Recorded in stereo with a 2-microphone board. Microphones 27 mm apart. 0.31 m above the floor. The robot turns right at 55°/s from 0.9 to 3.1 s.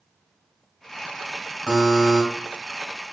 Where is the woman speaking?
No woman speaking in this recording.